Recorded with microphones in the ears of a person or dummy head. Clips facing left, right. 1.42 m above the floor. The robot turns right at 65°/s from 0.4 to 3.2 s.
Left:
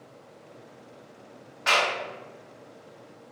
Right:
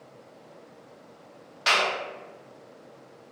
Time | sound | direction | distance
1.7 | a clap | 45° right (ahead or behind) | 0.9 m